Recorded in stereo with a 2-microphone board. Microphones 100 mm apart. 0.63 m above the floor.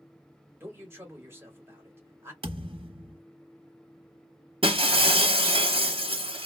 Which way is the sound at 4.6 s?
65° right (ahead or behind).